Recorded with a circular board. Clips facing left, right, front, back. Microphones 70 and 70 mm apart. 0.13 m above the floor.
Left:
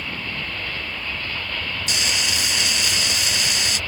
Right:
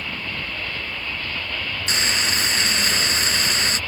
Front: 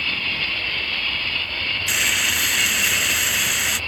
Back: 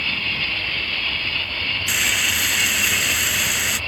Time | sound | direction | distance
1.9 | frying | 90° right | ?